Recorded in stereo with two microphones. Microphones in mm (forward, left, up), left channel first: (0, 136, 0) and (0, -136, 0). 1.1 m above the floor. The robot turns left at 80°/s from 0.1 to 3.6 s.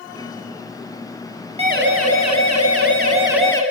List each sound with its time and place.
1.6 s a siren: 20° right (ahead or behind), 8 m; by 3.6 s 15° left (ahead or behind), 7.5 m